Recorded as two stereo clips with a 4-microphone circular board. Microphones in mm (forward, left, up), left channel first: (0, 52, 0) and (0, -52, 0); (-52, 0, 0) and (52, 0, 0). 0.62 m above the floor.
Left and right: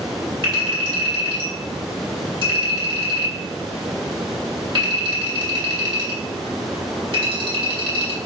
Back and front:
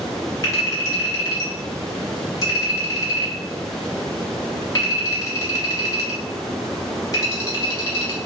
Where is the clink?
125° right, 1.0 m.